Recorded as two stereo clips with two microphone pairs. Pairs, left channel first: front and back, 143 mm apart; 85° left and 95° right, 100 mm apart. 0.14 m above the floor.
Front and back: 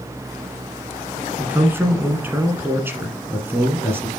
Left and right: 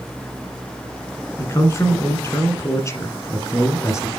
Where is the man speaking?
115° left, 1.6 m.